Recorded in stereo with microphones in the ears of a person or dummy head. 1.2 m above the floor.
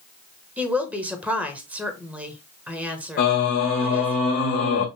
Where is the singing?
45° left (ahead or behind), 1.3 m.